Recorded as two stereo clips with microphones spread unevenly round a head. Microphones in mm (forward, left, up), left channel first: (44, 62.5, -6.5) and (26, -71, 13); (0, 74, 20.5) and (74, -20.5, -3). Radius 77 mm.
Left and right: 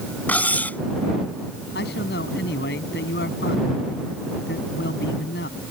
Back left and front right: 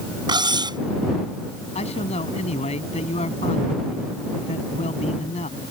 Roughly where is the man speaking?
Left.